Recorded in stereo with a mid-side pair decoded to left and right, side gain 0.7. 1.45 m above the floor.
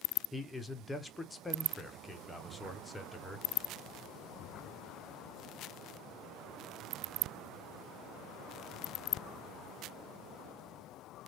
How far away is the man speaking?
About 0.8 m.